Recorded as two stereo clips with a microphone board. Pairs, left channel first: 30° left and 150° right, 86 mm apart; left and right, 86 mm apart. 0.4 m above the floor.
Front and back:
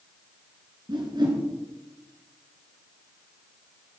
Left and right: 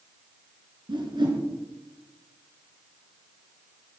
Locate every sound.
0.9 s a whoosh: 115° right, 3 m